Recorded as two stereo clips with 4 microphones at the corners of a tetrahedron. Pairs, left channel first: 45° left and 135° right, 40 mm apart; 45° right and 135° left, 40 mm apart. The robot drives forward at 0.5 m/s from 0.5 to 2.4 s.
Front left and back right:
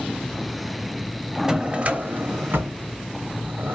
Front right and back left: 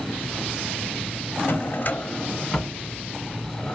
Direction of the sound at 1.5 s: 65° right.